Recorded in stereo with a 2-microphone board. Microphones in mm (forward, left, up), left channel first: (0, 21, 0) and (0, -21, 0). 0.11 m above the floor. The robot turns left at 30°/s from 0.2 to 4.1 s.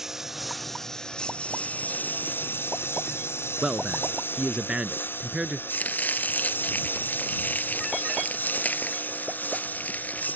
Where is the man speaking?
20° right (ahead or behind).